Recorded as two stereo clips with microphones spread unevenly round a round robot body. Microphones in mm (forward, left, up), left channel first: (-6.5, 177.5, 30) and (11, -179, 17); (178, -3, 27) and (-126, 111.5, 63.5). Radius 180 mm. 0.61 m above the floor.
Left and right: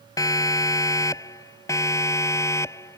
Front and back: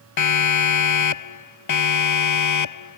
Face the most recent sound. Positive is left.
turn(degrees=10)